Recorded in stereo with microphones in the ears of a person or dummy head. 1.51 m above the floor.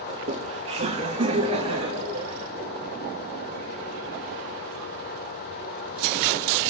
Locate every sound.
0.1 s laughter: 30° right (ahead or behind), 1.1 m